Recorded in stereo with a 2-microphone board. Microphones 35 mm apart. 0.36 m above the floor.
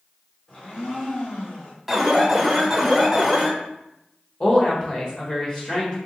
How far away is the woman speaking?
About 1.2 m.